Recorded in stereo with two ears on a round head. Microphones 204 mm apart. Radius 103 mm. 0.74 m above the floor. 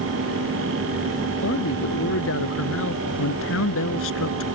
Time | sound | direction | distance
1.4 | a man speaking | 55° left (ahead or behind) | ?